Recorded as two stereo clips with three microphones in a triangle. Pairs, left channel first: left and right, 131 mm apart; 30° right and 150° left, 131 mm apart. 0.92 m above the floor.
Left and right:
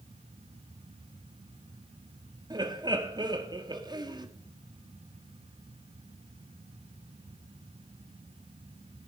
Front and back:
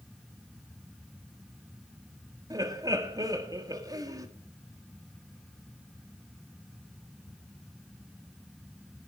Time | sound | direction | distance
2.5 | laughter | 145° right | 1.8 m